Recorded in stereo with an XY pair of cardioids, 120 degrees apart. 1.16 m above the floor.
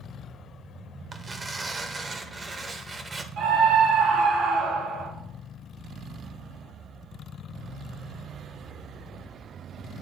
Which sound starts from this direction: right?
A scream, at 3.4 s.